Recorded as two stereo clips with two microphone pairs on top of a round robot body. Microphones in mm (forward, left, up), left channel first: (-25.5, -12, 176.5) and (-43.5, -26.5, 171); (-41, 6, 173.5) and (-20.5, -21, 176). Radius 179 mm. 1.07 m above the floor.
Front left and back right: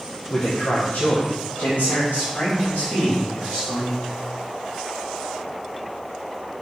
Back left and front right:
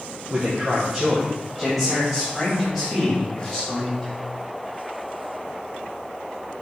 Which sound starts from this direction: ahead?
A man speaking, at 0.3 s.